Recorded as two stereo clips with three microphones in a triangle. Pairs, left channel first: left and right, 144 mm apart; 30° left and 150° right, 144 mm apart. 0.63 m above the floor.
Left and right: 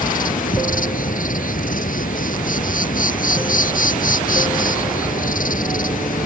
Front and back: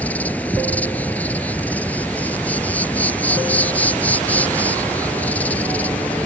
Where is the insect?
110° left.